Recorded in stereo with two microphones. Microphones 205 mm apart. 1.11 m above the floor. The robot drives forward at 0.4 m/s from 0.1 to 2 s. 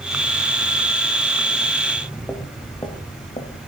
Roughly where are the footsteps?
Centre.